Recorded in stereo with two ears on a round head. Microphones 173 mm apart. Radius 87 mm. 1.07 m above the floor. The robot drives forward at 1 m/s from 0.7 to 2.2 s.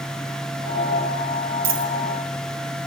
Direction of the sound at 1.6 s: 50° right (ahead or behind).